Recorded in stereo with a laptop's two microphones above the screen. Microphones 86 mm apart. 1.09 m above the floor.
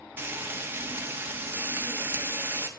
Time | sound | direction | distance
0.2 | frying | 25° right (ahead or behind) | 1.8 m